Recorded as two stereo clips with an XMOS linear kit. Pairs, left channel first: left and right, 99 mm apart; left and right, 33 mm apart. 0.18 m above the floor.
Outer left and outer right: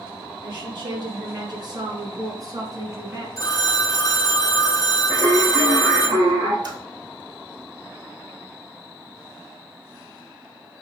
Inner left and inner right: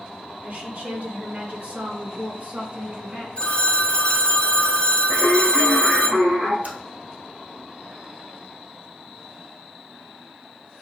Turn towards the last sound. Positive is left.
turn(degrees=-50)  # may be behind; listen again after turning